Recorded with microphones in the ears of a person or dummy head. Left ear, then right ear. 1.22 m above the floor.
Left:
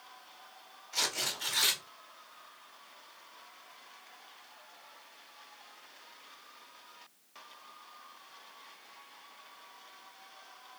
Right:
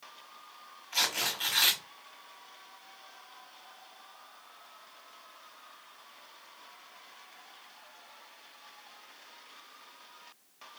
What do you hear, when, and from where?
0.9 s tearing paper: 40° right (ahead or behind), 1.8 m